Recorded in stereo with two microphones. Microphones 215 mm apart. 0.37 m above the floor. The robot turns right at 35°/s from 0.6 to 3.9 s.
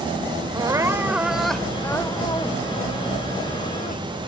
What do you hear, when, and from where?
0.5 s crying: 30° right; by 4.3 s 85° left